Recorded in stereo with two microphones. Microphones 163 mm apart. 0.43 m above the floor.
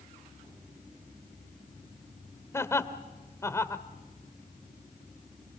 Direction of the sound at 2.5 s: 15° left (ahead or behind).